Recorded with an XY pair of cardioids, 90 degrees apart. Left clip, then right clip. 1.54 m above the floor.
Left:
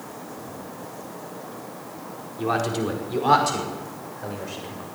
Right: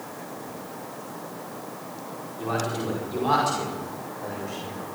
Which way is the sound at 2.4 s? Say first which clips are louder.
Left 4 dB; 55° left.